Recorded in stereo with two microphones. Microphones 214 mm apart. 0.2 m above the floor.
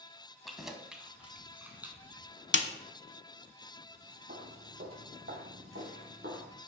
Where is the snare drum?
60° left (ahead or behind), 0.6 m.